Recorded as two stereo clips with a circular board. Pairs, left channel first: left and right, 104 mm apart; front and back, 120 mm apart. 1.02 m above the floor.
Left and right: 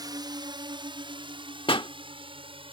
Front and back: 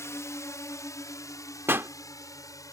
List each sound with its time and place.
0.0 s a drone: 60° right
1.7 s a pop: 110° left